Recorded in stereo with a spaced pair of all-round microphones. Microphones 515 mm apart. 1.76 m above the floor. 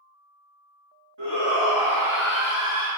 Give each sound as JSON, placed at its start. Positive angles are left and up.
{"t": 1.2, "sound": "a shout", "side_deg": -50, "distance_m": 3.0}